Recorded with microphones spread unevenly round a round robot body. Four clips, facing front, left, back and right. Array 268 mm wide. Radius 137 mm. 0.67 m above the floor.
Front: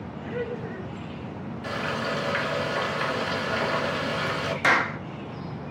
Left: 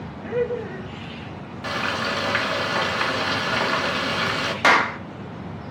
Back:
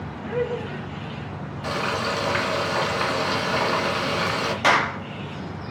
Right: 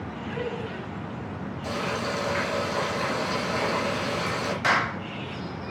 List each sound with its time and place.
0.2 s laughter: 120° left, 3.5 m
1.6 s frying: 115° left, 2.0 m
4.6 s a clap: 105° left, 1.2 m